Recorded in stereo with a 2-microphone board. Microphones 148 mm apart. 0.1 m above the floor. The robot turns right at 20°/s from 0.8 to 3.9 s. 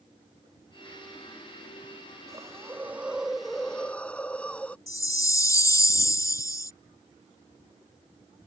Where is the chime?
20° left (ahead or behind).